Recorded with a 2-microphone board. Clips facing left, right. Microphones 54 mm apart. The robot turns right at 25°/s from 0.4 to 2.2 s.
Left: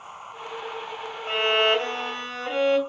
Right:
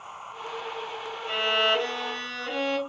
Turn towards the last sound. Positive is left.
turn(degrees=20)  # may be behind; listen again after turning